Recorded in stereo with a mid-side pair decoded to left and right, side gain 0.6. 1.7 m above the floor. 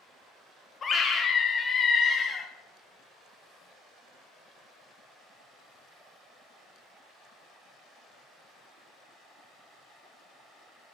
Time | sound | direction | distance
0.8 | a scream | 35° left | 0.6 m